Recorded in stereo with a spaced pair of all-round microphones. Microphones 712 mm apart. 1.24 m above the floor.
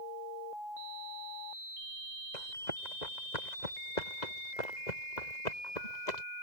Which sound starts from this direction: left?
Running footsteps, at 2.3 s.